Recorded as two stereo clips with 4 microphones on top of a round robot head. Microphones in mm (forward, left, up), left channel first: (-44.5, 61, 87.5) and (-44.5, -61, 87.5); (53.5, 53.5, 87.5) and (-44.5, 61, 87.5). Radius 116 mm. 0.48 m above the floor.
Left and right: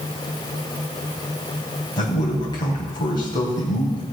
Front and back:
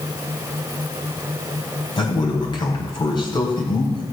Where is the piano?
I don't hear a piano.